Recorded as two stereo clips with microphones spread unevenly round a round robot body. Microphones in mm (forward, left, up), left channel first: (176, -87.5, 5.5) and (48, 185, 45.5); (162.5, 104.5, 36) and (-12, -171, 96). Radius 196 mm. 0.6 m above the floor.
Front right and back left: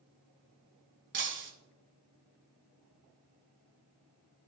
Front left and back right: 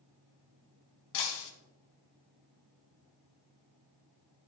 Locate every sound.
1.1 s breaking glass: 70° left, 1.2 m